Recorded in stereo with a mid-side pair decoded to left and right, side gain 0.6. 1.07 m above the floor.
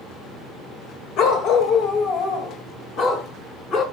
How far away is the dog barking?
About 1.9 m.